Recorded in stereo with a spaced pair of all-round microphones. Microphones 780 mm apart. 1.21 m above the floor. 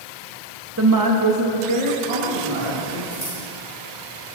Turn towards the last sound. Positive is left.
turn(degrees=65)  # may be behind; listen again after turning